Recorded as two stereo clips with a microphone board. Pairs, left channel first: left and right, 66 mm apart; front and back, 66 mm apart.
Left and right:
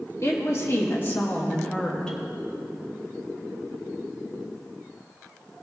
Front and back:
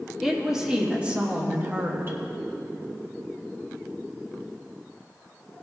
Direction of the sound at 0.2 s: 95° left.